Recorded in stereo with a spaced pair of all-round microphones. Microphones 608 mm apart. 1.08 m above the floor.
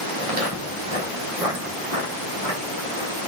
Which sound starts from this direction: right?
Footsteps, at 0.2 s.